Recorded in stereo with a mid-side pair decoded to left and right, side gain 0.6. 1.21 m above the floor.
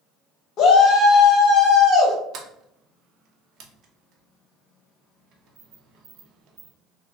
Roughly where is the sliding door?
Ahead right.